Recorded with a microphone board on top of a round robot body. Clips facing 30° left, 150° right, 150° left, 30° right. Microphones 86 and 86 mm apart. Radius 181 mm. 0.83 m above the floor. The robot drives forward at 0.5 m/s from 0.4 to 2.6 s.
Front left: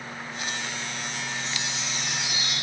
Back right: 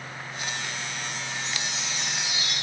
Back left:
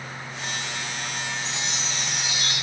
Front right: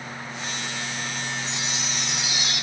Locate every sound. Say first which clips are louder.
1.4 s a chime: even, even; 140° right, 0.5 m; by 2.5 s 165° right, 0.9 m